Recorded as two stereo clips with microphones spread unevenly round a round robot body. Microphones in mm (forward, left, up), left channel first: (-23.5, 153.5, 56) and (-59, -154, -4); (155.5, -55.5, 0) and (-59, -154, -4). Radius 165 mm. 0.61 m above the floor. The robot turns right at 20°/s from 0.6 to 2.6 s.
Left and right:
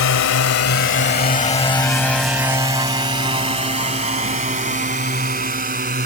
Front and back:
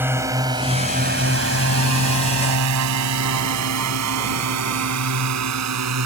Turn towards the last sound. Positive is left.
turn(degrees=-160)